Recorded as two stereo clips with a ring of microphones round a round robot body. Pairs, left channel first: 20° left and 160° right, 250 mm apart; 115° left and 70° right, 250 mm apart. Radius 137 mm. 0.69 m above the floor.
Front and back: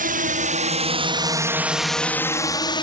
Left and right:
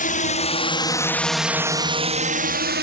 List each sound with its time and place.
0.0 s a drone: 160° left; by 2.8 s 40° right